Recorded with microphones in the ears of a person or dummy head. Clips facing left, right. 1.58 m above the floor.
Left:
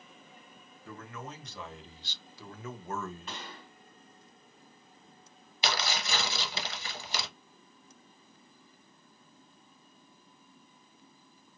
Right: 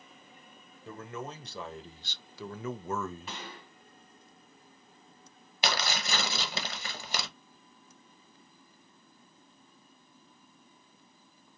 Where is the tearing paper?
45° right (ahead or behind), 1.0 m.